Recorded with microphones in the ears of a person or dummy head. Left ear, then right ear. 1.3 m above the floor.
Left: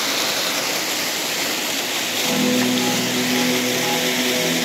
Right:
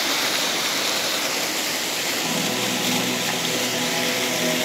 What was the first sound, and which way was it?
A piano, 40° left (ahead or behind).